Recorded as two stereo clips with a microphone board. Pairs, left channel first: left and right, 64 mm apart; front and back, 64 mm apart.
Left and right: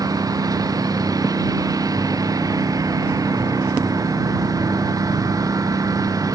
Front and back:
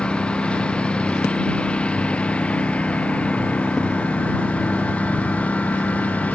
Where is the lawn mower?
75° right; by 6.4 s 70° right.